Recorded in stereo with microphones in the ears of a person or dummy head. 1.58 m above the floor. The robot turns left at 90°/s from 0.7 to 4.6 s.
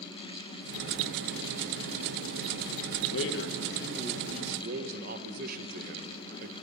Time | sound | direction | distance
3.1 | a man speaking | 90° left | 2 m